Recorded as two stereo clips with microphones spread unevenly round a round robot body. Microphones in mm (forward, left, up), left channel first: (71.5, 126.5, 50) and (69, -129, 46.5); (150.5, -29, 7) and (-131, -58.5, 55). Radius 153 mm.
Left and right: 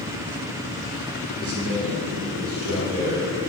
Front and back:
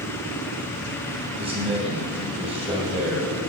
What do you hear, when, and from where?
1.4 s a man speaking: 100° right, 3 m